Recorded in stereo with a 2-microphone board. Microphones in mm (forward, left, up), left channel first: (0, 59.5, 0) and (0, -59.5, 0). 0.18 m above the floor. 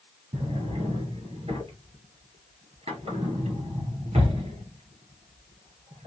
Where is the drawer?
60° right (ahead or behind), 1.9 m.